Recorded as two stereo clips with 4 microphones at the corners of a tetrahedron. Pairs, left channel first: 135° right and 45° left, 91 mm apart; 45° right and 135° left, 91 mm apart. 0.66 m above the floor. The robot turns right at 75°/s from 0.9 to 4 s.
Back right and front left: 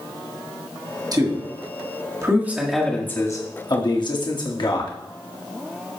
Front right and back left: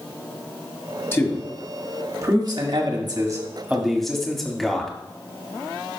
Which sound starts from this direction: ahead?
A man speaking, at 1.1 s.